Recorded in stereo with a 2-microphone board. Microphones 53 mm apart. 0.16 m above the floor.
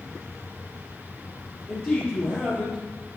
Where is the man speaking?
25° left (ahead or behind), 4 m.